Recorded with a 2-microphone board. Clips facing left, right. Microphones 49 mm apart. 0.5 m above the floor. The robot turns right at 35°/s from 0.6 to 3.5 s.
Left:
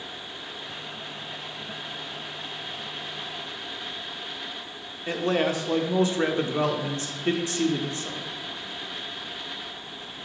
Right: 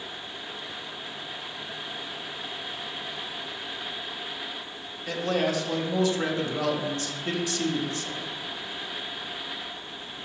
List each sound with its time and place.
5.1 s a man speaking: 30° left (ahead or behind), 0.8 m